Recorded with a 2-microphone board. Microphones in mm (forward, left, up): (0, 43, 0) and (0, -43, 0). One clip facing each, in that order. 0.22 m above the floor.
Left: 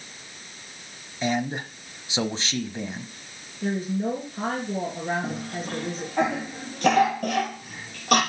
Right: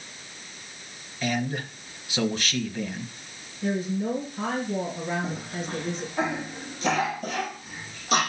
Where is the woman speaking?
40° left (ahead or behind), 4 m.